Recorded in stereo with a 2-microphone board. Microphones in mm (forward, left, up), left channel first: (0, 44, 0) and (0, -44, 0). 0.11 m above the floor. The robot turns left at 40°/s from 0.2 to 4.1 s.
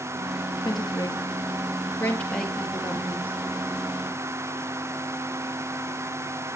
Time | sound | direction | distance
0.7 | a woman speaking | 55° left (ahead or behind) | 1.7 m